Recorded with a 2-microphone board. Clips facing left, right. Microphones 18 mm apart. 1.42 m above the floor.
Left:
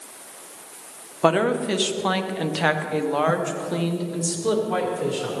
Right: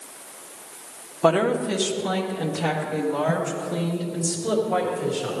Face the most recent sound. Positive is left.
turn(degrees=65)  # may be behind; listen again after turning